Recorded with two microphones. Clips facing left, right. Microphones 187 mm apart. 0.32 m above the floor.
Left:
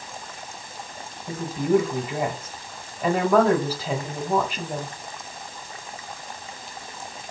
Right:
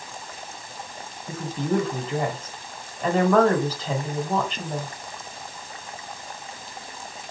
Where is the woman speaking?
10° left (ahead or behind), 1.6 m.